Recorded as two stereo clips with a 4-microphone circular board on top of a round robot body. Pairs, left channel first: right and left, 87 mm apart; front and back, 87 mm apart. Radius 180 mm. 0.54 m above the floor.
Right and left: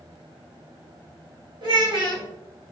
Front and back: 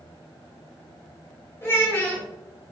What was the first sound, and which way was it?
A child speaking, 60° left.